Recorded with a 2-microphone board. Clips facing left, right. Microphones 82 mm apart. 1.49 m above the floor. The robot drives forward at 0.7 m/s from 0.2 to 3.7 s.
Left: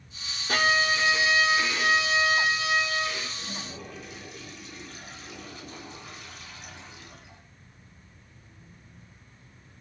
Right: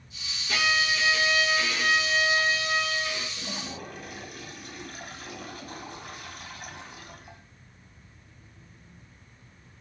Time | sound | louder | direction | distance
0.5 | a violin | left 3 dB | 45° left (ahead or behind) | 0.6 m
3.4 | a toilet flushing | right 2 dB | 60° right (ahead or behind) | 1.4 m